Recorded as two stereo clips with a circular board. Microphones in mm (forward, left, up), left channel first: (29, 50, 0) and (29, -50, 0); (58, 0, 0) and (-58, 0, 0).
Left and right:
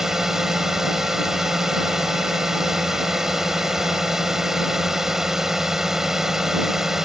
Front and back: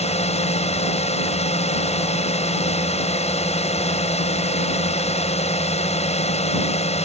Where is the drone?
5° right.